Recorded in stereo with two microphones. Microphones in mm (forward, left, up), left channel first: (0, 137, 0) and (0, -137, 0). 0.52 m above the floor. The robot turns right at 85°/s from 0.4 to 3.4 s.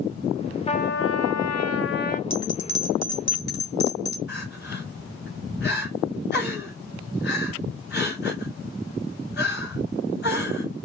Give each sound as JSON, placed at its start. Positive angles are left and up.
{"t": 0.7, "sound": "a trumpet", "azimuth_deg": 20, "distance_m": 0.6}
{"t": 2.3, "sound": "a bell", "azimuth_deg": 50, "distance_m": 1.7}
{"t": 4.3, "sound": "crying", "side_deg": 40, "distance_m": 3.0}